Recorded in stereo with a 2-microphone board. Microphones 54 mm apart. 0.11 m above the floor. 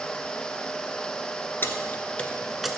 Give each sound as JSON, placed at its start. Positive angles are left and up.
{"t": 1.6, "sound": "keys jangling", "side_deg": 45, "distance_m": 1.2}